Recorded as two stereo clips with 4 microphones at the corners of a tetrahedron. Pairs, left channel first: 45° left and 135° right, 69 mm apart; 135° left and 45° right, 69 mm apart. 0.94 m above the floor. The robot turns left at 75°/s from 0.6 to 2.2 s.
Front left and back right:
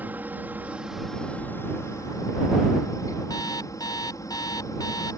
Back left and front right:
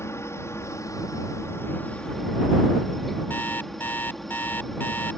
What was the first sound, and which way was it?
A helicopter, 170° left.